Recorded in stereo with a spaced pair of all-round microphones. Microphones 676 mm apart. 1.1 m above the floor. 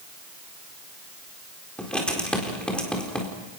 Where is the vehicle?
I don't hear a vehicle.